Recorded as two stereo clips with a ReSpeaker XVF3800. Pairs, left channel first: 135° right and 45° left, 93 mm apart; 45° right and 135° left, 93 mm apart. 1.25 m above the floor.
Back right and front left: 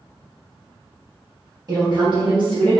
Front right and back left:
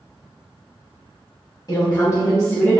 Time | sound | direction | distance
1.7 | a woman speaking | 5° left | 1.4 m